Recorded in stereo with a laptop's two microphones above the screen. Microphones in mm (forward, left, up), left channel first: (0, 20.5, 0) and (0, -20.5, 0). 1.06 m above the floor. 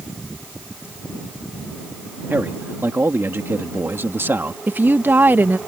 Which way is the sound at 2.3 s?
65° right (ahead or behind).